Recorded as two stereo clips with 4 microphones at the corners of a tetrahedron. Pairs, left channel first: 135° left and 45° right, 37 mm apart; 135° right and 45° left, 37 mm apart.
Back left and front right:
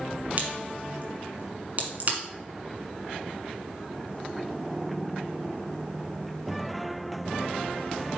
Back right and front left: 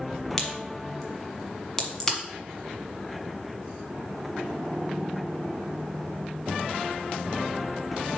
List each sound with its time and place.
0.4 s a crack: 65° right, 1.4 m